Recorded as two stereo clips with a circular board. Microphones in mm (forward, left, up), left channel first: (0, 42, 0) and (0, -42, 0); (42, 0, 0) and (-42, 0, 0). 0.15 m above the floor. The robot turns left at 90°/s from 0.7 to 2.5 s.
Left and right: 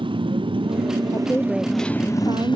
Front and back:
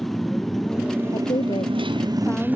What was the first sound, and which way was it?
A motorcycle, 85° right.